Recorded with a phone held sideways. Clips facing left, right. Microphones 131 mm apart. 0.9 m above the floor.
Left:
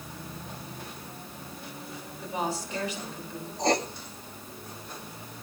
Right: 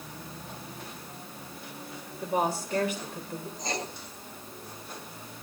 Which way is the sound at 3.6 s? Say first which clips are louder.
Left 10 dB; 65° left (ahead or behind).